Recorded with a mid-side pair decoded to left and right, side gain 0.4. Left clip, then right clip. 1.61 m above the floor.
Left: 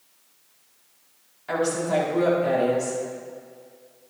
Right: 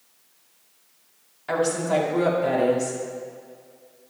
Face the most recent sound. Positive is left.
turn(degrees=-30)